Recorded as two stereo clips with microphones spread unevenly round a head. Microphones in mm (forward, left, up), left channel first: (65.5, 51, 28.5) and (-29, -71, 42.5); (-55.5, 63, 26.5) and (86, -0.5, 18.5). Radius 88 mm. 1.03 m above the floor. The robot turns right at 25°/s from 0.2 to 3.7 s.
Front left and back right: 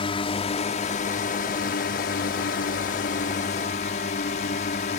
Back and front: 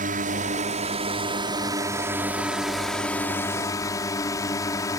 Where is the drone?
Straight ahead; by 5.0 s 90° left.